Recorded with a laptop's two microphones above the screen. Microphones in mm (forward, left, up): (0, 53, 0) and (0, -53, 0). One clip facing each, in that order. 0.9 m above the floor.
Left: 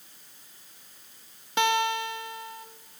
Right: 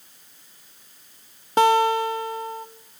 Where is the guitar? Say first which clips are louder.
Right 8 dB; 40° right (ahead or behind), 0.8 m.